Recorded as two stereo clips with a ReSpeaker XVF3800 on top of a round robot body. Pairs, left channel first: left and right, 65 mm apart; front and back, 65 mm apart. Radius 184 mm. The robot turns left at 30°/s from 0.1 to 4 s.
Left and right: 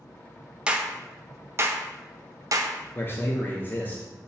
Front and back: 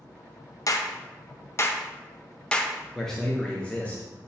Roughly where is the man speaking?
Left.